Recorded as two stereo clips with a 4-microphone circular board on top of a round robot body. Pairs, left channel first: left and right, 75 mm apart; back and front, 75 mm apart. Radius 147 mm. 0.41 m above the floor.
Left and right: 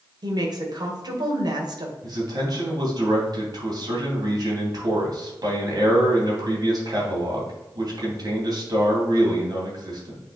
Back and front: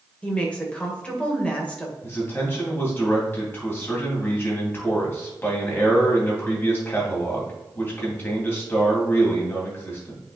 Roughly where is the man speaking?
Behind right.